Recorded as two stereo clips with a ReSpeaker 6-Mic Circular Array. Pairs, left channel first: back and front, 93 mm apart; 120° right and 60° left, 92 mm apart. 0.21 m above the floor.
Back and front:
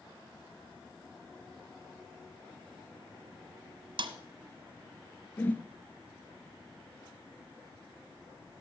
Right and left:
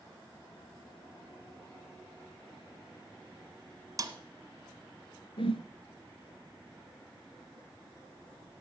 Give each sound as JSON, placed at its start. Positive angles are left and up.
{"t": 4.0, "sound": "a snare drum", "azimuth_deg": 15, "distance_m": 1.1}
{"t": 5.4, "sound": "a whoosh", "azimuth_deg": -110, "distance_m": 0.8}